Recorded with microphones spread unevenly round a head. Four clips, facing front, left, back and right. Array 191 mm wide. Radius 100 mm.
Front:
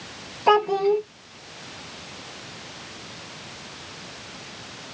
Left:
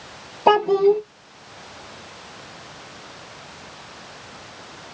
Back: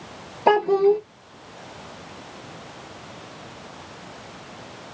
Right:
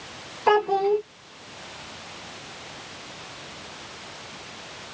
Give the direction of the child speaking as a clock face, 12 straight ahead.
8 o'clock.